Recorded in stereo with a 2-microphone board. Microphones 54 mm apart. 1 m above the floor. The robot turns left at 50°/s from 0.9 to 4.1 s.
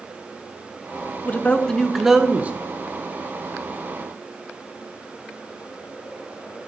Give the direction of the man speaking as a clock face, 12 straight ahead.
11 o'clock.